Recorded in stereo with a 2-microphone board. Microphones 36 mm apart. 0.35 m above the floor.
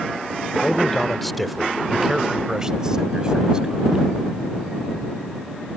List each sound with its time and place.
0.6 s a man speaking: 20° left (ahead or behind); by 4.0 s 25° right (ahead or behind)